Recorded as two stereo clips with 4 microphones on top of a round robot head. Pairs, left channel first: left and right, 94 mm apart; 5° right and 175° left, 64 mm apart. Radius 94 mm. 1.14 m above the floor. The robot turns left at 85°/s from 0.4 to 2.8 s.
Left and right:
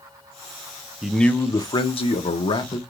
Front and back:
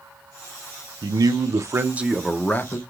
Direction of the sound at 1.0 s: 170° right.